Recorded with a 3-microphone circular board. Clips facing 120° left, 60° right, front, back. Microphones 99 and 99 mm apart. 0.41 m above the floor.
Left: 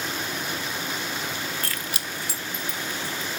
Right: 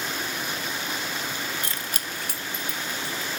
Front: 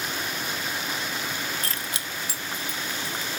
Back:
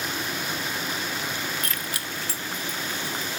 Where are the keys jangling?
Straight ahead, 0.5 m; by 3.3 s 90° right, 1.9 m.